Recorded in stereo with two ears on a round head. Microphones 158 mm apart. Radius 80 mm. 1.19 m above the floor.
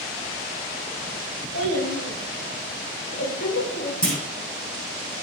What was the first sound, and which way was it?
A child speaking, 80° left.